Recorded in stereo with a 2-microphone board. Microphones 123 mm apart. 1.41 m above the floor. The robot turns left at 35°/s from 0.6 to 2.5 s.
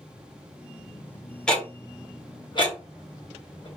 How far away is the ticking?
About 1.1 m.